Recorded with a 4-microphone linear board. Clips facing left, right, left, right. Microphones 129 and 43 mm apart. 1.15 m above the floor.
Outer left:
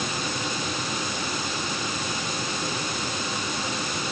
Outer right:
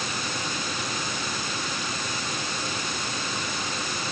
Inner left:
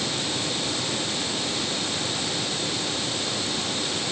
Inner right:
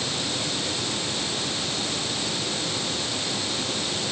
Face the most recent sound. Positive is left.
No sound to turn to.